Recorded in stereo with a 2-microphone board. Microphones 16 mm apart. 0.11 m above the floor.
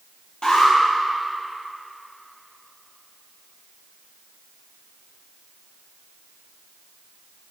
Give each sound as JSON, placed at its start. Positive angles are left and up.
{"t": 0.4, "sound": "an alarm", "side_deg": 45, "distance_m": 2.0}